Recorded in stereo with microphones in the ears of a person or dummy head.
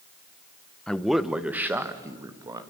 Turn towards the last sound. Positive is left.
turn(degrees=-20)  # may be behind; listen again after turning